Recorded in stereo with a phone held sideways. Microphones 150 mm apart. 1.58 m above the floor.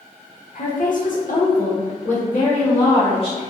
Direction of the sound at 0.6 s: 55° left (ahead or behind).